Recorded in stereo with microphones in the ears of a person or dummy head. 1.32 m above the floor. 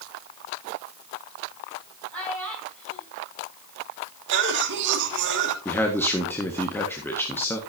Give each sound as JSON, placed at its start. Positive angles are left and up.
{"t": 2.1, "sound": "a child speaking", "side_deg": 0, "distance_m": 6.5}
{"t": 4.3, "sound": "a cough", "side_deg": -60, "distance_m": 2.5}
{"t": 5.7, "sound": "a man speaking", "side_deg": 5, "distance_m": 1.5}